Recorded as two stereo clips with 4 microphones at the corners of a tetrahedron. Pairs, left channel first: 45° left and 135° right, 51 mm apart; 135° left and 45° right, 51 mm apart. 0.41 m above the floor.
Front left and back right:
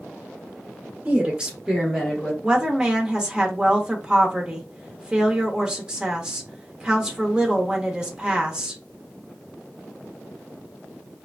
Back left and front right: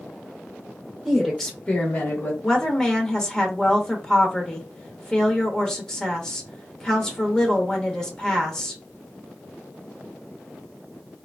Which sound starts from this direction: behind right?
A woman speaking, at 1.1 s.